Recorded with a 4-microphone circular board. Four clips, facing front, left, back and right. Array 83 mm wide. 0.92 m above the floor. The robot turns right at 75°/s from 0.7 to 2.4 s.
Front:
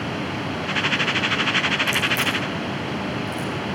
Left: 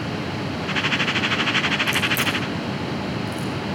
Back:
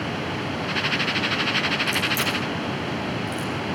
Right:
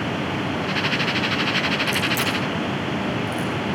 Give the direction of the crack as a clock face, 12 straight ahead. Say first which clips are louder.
Even, front 2 dB; 1 o'clock.